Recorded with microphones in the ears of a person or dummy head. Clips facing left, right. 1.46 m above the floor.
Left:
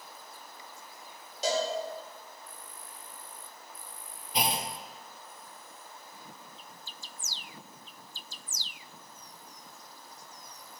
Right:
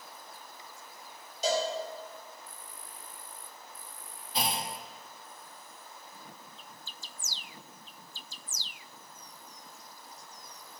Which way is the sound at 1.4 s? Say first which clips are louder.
Even; 65° left (ahead or behind).